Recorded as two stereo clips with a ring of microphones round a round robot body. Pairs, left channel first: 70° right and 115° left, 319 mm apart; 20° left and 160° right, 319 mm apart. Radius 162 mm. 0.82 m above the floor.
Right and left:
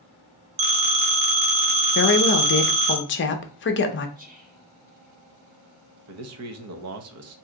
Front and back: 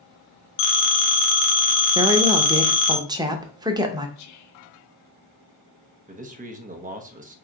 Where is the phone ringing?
55° left, 1.2 m.